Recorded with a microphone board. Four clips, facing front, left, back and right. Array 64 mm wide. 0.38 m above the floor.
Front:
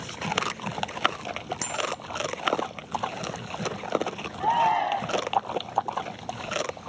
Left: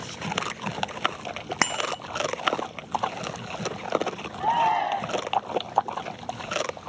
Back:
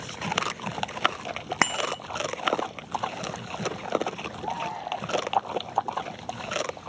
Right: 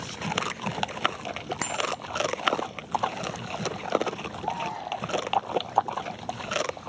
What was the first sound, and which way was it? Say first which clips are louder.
A bicycle bell: left 4 dB, back 6 dB; 150° left.